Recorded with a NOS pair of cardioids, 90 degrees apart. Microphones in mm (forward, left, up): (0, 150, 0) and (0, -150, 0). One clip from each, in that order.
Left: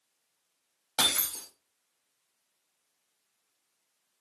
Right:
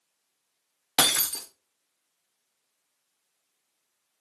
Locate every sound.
1.0 s breaking glass: 50° right, 1.6 m